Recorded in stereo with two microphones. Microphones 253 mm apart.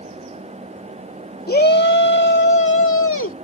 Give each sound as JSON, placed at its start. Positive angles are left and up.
{"t": 1.5, "sound": "a shout", "side_deg": 35}